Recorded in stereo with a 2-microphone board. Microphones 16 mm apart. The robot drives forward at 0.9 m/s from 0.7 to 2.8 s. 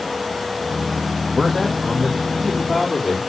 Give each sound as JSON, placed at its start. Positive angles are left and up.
{"t": 1.4, "sound": "a man speaking", "side_deg": 5, "distance_m": 1.1}